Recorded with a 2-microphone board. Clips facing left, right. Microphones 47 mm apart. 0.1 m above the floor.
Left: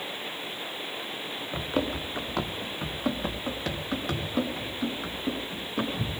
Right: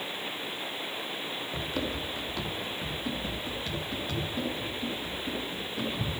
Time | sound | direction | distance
1.5 | running footsteps | 25° left (ahead or behind) | 1.2 m